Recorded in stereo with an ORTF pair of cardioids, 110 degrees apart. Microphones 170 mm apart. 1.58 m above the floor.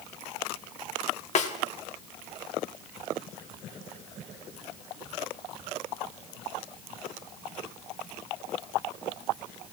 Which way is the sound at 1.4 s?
45° left.